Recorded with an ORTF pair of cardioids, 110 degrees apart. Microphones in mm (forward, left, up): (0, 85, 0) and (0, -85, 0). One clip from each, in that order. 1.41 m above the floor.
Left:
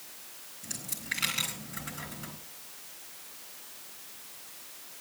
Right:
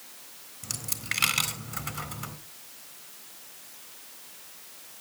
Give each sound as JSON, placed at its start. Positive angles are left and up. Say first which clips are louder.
{"t": 0.6, "sound": "a dropped coin", "louder": "right 3 dB", "azimuth_deg": -65, "distance_m": 3.5}